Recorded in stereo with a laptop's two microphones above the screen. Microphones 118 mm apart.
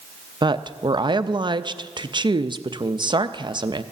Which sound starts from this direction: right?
A woman speaking, at 0.4 s.